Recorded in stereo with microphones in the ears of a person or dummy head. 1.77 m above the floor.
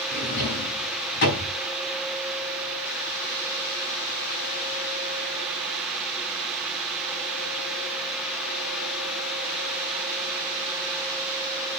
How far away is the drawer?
About 6 m.